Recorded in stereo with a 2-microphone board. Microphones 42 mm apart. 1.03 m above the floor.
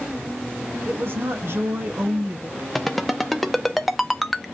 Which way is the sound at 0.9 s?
55° right (ahead or behind).